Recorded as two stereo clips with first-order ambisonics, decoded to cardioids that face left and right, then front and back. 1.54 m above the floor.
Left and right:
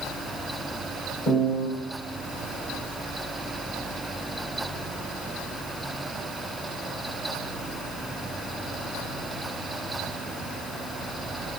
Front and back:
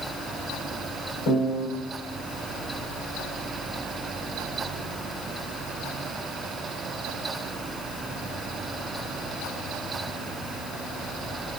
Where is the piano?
35° left, 3 m.